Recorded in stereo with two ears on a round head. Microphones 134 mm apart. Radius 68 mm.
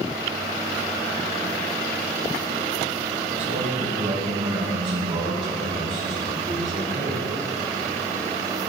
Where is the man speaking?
50° right (ahead or behind), 1.7 m; by 7.2 s 30° right (ahead or behind), 6 m.